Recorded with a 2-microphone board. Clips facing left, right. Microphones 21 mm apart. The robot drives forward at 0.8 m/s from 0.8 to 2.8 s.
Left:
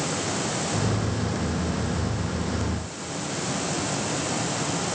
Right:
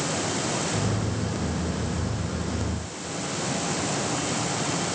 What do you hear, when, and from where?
Only background noise.